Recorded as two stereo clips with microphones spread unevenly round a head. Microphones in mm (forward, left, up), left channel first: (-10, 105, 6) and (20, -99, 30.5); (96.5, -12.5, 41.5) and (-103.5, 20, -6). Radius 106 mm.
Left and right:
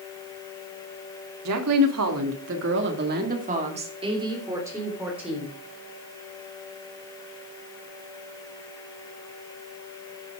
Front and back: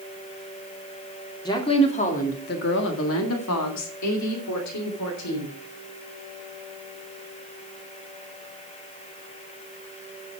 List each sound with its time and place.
1.4 s a woman speaking: 80° right, 2.5 m; by 5.5 s 5° left, 4 m